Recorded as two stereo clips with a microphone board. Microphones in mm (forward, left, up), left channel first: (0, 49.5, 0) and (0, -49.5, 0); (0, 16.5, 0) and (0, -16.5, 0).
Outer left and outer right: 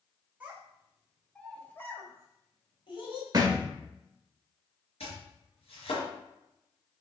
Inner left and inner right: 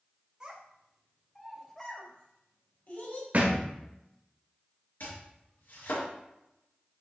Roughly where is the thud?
Right.